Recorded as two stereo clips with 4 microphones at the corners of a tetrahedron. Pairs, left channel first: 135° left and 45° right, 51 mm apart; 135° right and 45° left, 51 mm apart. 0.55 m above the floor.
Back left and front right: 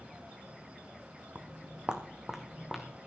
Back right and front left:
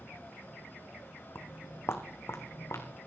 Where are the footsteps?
105° right, 1.3 m; by 2.9 s 135° right, 2 m.